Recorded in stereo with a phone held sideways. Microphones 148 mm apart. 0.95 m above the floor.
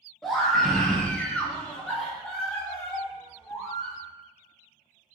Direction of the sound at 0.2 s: Centre (ahead or behind).